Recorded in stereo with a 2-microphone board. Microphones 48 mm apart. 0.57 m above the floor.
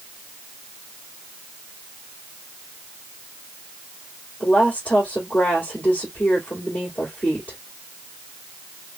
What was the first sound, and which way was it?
A woman speaking, 35° left (ahead or behind).